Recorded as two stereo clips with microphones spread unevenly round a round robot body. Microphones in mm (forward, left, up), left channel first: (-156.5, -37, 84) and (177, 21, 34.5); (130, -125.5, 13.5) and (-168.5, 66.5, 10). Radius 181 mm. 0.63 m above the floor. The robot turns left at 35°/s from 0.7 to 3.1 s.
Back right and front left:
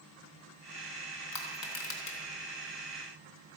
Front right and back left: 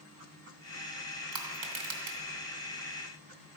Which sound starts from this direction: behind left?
Crushing, at 1.3 s.